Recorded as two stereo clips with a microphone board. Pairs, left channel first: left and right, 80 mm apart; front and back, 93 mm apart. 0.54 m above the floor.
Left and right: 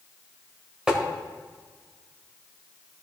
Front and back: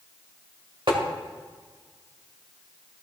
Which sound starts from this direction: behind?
Tapping, at 0.9 s.